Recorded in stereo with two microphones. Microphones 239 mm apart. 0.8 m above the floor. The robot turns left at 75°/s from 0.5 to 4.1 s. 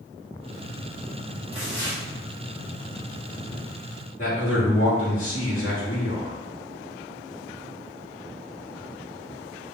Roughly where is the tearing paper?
Right.